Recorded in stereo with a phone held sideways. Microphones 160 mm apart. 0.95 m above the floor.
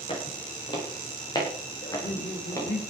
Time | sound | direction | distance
0.1 | footsteps | 35° left (ahead or behind) | 9 m
1.8 | laughter | 80° left | 2.5 m